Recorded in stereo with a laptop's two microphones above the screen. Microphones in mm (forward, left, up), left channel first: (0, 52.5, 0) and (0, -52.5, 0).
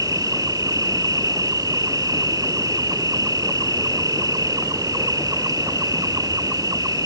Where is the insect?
35° right (ahead or behind).